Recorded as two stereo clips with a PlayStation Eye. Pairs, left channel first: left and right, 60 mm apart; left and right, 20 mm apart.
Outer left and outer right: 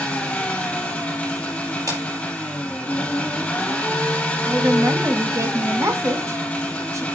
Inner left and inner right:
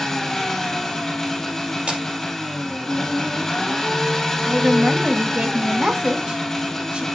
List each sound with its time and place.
0.0 s an engine running: 20° left (ahead or behind), 3 m
1.9 s breaking glass: 65° right (ahead or behind), 5 m
4.4 s a woman speaking: 55° right (ahead or behind), 1.6 m